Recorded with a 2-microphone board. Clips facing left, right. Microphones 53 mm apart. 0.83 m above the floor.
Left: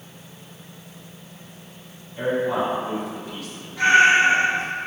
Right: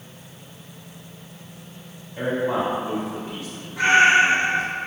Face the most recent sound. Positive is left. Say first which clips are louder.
# even
turn(degrees=-30)  # may be behind; listen again after turning